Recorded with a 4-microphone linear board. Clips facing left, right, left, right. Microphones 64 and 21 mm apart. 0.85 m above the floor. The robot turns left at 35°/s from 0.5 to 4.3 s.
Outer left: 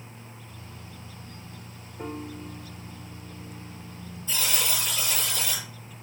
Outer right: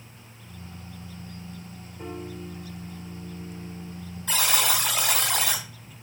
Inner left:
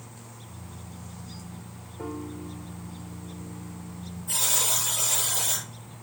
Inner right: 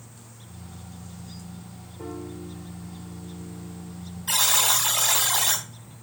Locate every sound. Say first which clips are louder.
2.0 s a piano: outer left 1 dB, even; 25° left (ahead or behind), 3 m; by 4.0 s 45° right (ahead or behind), 3 m
4.3 s a buzzer: outer right 5 dB, inner right 5 dB; 85° right, 3.5 m